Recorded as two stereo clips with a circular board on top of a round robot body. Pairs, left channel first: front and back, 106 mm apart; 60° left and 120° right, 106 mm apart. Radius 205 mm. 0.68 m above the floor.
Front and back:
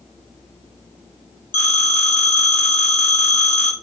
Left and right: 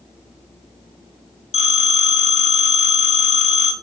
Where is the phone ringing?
70° left, 1.7 m.